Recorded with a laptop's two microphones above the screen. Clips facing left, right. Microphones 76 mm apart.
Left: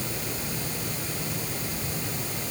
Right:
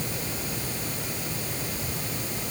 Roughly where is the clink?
No clink in this recording.